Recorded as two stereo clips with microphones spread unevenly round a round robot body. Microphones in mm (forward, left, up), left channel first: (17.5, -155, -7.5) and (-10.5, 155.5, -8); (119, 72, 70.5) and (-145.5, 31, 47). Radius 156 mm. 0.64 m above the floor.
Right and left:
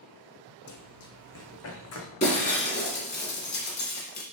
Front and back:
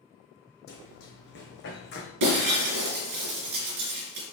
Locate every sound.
0.7 s running footsteps: 45° right, 1.2 m; by 2.1 s 40° right, 2 m
2.2 s breaking glass: 155° right, 2.5 m